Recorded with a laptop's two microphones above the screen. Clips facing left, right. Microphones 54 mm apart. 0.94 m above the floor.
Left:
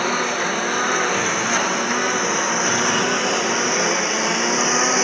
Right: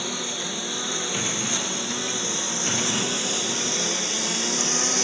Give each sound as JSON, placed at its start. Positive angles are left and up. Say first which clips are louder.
{"t": 0.0, "sound": "a lawn mower", "louder": "left 11 dB", "side_deg": 55}